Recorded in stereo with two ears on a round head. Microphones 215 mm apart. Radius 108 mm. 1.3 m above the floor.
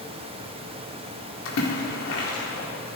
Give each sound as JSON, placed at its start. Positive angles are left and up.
{"t": 1.4, "sound": "a splash", "side_deg": 60, "distance_m": 2.5}